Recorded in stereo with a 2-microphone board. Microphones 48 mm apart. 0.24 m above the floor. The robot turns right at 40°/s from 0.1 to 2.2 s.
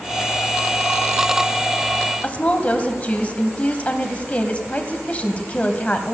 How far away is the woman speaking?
About 1.0 m.